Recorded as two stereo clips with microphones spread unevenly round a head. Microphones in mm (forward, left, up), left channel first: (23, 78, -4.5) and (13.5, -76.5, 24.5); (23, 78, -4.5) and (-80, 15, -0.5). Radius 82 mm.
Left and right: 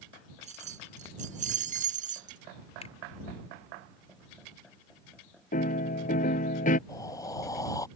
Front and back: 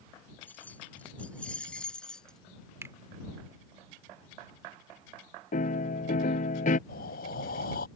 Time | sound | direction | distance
0.4 | keys jangling | 50° right | ?
2.8 | a finger snap | 145° left | ?
5.5 | a piano | 45° left | ?
6.9 | breathing | 15° left | ?